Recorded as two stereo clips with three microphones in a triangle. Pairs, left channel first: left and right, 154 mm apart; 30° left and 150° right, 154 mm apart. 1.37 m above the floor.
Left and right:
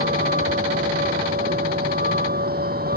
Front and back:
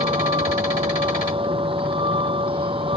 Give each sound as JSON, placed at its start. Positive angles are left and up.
{"t": 0.0, "sound": "a vehicle", "azimuth_deg": -95}